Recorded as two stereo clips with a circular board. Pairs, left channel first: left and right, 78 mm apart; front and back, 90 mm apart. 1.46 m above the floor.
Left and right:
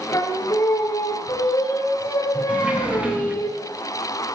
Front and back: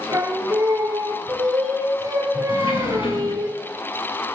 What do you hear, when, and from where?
0.1 s singing: 135° left, 6 m
2.5 s a sliding door: 15° right, 2.5 m